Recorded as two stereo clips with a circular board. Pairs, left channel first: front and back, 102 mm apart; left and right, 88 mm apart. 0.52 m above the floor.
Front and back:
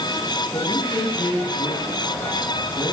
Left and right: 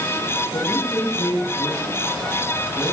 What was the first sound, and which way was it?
A man speaking, 45° left.